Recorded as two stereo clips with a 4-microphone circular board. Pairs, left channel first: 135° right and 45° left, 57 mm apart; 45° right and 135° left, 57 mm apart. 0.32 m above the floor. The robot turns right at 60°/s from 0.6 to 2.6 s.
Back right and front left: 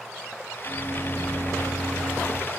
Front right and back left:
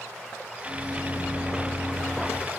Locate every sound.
0.6 s a microwave: 30° left, 0.9 m; by 2.4 s 135° left, 0.9 m